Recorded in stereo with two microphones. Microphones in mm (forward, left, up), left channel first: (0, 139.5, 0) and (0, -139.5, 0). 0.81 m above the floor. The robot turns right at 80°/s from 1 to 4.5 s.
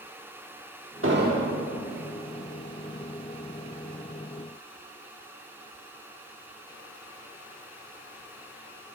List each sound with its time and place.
1.0 s an explosion: 50° right, 1.3 m; by 1.6 s 5° right, 1.3 m